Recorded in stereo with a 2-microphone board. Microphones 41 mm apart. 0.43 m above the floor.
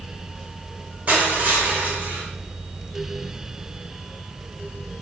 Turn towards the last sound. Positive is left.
turn(degrees=-35)  # may be behind; listen again after turning